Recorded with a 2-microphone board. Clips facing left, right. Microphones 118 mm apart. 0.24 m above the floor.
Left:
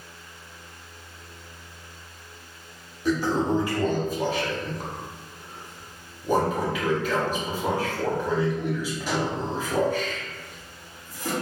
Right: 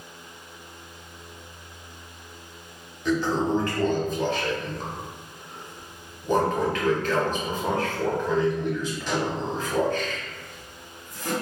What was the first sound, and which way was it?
A toilet flushing, 10° left (ahead or behind).